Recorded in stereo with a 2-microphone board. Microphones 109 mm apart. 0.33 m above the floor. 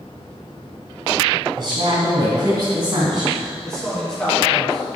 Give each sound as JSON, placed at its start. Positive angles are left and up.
{"t": 1.6, "sound": "a woman speaking", "side_deg": -45, "distance_m": 2.5}
{"t": 3.6, "sound": "a man speaking", "side_deg": 5, "distance_m": 2.0}